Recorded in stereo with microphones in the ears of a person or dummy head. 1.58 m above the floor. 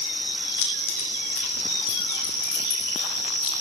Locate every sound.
0.6 s keys jangling: 65° left (ahead or behind), 9.5 m; by 3.5 s 75° left (ahead or behind), 11 m